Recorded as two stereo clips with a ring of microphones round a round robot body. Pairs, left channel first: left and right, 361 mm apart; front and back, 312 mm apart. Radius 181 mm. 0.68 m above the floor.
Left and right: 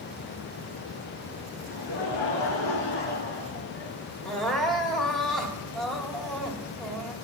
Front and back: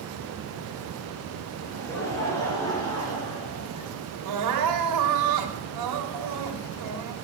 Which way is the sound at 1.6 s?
80° left.